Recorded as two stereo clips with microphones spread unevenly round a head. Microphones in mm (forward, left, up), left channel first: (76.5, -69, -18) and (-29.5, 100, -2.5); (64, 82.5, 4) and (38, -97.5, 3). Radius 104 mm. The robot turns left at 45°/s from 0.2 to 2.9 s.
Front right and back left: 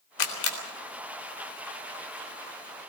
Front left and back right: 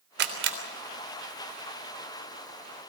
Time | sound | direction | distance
0.2 | a camera shutter | 75° right | 3.5 m